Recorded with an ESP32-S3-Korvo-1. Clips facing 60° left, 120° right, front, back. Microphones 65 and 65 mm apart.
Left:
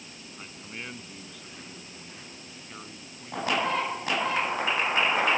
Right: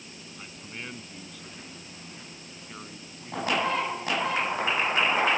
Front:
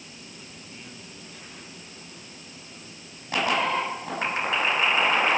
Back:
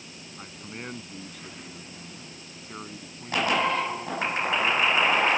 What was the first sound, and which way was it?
A man speaking, 145° left.